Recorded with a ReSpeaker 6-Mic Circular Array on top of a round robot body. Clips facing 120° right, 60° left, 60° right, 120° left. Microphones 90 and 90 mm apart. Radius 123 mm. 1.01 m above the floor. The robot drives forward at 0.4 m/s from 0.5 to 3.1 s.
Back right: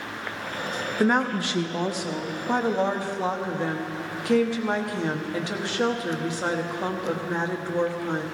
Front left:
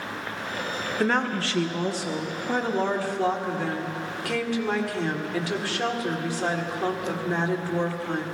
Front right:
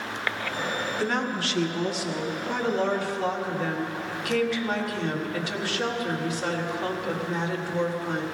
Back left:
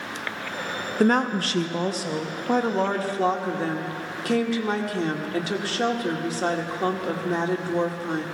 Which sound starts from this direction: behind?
A woman speaking, at 1.0 s.